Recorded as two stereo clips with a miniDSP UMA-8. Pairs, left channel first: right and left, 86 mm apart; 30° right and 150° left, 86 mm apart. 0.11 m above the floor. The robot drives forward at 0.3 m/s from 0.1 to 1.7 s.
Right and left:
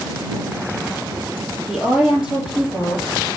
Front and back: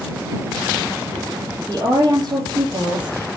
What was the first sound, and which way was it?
A woman speaking, 160° left.